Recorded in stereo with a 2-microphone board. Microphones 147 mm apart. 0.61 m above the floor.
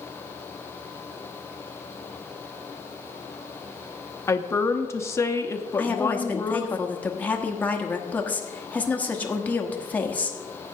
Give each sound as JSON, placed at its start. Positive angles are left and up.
{"t": 4.3, "sound": "a woman speaking", "side_deg": 20, "distance_m": 0.7}
{"t": 5.8, "sound": "a woman speaking", "side_deg": 10, "distance_m": 1.0}